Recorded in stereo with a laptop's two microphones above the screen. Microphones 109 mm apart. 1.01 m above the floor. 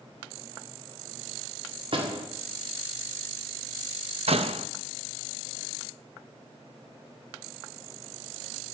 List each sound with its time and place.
1.9 s a door slam: 55° right (ahead or behind), 1.8 m
4.3 s a door slam: 65° right (ahead or behind), 0.6 m